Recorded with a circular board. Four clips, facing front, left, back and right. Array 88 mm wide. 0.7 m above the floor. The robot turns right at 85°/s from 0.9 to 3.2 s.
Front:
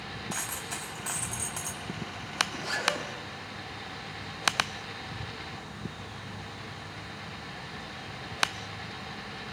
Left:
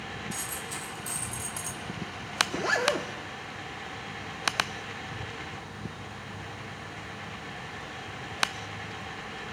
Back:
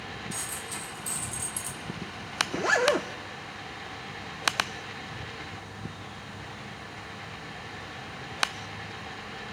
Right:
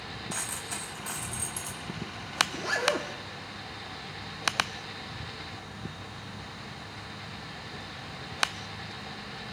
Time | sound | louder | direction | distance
0.3 | a dropped coin | even, front 1 dB | 35° right | 1.6 m
2.5 | a zipper | left 4 dB, back 13 dB | 135° left | 0.7 m